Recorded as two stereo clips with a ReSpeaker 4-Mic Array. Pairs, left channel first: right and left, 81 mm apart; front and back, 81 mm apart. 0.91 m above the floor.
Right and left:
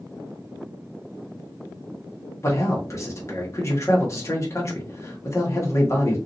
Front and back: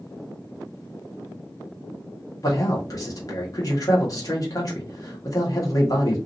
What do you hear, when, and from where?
2.4 s a man speaking: 40° right, 1.4 m